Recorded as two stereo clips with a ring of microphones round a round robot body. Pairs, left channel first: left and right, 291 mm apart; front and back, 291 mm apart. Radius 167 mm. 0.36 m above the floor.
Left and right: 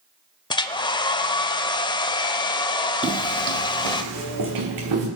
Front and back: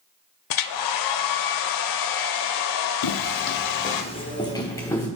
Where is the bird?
I don't hear a bird.